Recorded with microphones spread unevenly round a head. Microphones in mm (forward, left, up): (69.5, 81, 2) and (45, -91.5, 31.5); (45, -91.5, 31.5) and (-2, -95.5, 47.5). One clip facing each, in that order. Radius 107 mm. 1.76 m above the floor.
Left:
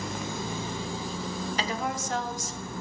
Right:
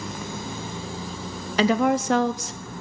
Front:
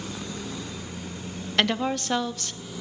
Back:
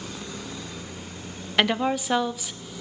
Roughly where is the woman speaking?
Right.